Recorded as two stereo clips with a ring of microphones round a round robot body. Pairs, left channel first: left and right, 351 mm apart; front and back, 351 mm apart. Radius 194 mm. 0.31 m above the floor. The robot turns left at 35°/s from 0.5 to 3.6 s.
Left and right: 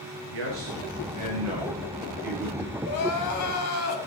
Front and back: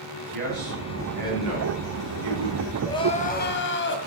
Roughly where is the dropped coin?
No dropped coin in this recording.